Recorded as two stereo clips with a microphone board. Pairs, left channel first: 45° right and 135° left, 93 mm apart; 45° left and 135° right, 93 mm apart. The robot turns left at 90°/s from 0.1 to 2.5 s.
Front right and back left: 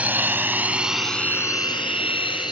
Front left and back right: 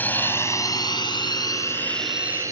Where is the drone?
80° left; by 2.5 s 80° right.